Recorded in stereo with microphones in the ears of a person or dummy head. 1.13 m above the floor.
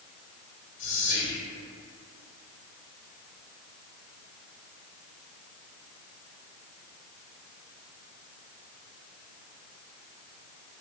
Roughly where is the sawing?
No sawing in this recording.